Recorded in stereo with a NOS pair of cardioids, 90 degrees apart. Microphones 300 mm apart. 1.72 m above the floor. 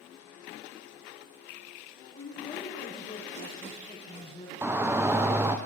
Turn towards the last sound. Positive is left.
turn(degrees=-10)